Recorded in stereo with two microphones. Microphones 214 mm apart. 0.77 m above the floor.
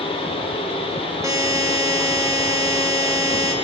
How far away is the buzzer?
About 1.5 m.